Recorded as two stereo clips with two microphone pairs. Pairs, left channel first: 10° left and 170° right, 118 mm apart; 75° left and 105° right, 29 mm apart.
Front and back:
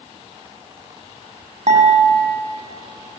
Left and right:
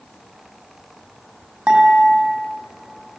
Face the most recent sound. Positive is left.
turn(degrees=-150)